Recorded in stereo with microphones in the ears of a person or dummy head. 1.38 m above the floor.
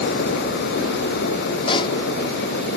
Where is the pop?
30° left (ahead or behind).